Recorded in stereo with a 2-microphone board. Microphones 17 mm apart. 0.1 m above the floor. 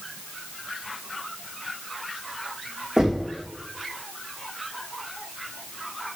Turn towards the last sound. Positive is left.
turn(degrees=-30)  # may be behind; listen again after turning